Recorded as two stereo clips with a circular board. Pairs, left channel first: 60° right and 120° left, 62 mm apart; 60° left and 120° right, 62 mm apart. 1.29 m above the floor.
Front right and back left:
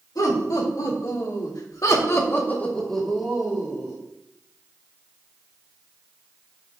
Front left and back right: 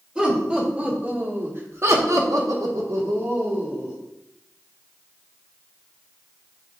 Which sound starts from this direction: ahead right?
Laughter, at 0.1 s.